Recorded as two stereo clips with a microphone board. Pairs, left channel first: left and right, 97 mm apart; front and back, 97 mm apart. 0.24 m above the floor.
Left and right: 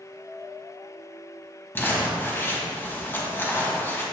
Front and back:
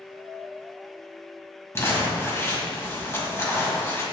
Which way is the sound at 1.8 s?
40° left.